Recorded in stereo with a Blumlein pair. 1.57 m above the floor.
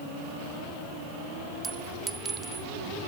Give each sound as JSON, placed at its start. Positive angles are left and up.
{"t": 1.6, "sound": "a clink", "azimuth_deg": -15}